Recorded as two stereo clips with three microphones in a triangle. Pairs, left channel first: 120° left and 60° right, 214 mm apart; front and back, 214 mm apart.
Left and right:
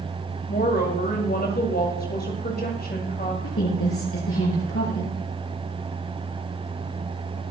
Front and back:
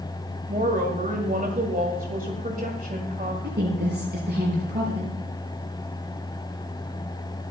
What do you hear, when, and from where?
0.5 s a woman speaking: 145° left, 2.0 m
3.4 s a woman speaking: 140° left, 6.5 m